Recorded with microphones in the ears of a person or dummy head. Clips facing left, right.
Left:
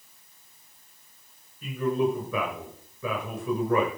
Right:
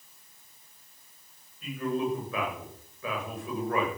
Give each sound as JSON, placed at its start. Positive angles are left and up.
{"t": 1.6, "sound": "a man speaking", "side_deg": 90, "distance_m": 7.0}